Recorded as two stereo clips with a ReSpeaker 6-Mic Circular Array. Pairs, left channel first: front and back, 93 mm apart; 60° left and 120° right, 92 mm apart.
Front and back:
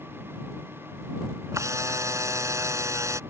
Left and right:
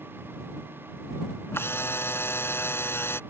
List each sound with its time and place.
1.5 s a camera shutter: 125° left